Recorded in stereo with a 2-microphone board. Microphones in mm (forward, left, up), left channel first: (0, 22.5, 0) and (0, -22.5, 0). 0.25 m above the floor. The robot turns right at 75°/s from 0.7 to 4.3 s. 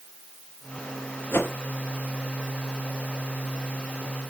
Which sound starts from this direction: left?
A whoosh, at 1.3 s.